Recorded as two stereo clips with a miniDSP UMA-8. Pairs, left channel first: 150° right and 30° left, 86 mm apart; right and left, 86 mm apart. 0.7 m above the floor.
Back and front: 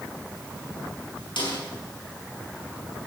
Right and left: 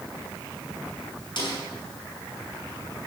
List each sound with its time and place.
1.4 s a snare drum: 120° right, 6.5 m